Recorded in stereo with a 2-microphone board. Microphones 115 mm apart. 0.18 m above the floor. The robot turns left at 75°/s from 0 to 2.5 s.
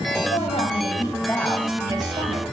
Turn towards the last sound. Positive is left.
turn(degrees=-75)